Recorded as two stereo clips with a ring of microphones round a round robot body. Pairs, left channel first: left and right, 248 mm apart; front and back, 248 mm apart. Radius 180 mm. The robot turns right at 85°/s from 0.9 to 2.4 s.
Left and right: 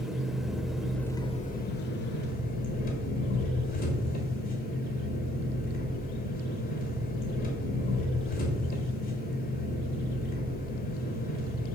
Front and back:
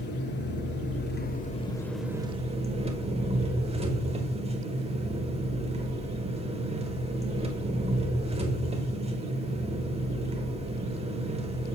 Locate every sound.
0.0 s an engine running: straight ahead, 1.4 m; by 11.8 s 125° left, 1.4 m